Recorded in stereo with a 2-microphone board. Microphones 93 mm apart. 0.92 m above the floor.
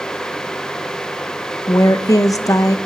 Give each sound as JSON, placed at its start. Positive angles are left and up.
{"t": 1.7, "sound": "a woman speaking", "side_deg": 40, "distance_m": 0.6}